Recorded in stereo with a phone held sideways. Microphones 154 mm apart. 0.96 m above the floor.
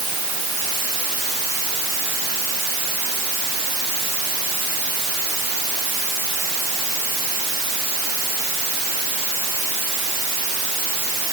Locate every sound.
Only background noise.